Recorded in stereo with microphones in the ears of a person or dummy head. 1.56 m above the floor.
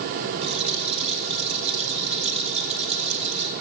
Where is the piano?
I don't hear a piano.